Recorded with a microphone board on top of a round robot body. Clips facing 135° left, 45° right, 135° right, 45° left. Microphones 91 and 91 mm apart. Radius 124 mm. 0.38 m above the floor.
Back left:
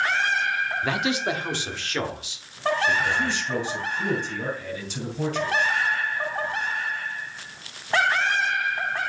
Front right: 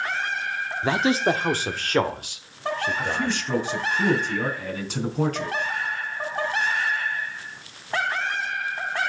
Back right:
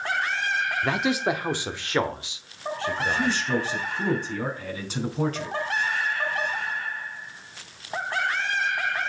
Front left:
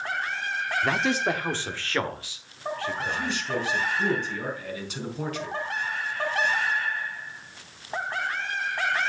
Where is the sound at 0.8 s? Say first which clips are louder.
Front right 8 dB, front left 1 dB; 45° right, 0.9 m; by 3.4 s 70° right, 2.5 m.